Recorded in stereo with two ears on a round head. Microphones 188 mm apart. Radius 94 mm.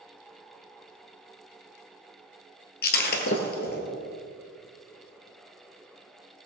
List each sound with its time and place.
2.8 s breaking glass: 50° left (ahead or behind), 2.0 m